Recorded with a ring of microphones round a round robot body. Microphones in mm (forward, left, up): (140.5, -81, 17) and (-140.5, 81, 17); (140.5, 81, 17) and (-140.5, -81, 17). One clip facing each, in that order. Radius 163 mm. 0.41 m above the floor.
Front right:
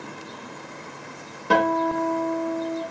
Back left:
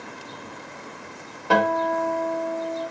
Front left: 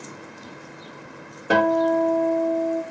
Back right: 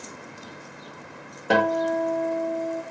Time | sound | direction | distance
1.5 | a guitar | 50° right | 0.9 m